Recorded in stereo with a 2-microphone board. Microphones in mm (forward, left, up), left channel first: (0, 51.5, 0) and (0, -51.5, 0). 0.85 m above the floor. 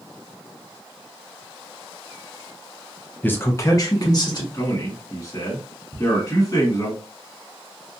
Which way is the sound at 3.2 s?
15° left (ahead or behind).